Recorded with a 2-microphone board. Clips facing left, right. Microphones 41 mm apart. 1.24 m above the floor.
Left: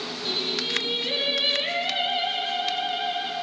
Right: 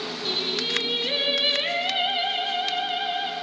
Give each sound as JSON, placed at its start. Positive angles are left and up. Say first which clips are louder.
{"t": 0.2, "sound": "singing", "louder": "right 1 dB", "side_deg": -15, "distance_m": 1.4}